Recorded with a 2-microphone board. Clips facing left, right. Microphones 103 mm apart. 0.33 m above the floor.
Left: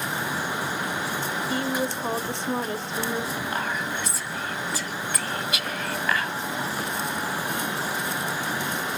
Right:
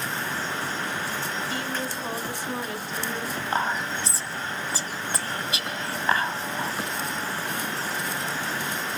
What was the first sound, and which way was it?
A woman speaking, 25° left (ahead or behind).